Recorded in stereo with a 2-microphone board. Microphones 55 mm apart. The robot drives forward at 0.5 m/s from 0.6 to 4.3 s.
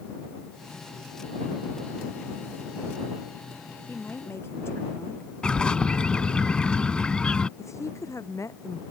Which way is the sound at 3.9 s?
50° left (ahead or behind).